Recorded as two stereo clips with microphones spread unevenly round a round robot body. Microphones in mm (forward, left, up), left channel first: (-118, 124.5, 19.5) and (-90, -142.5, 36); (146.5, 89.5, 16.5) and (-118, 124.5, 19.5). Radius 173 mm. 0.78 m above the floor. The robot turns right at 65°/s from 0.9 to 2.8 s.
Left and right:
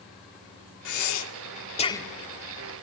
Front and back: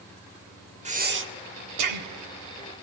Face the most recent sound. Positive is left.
turn(degrees=-130)